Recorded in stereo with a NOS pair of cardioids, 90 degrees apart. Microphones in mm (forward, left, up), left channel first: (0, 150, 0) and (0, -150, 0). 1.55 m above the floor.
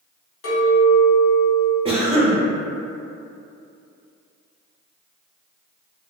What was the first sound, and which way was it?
A clink, 45° left.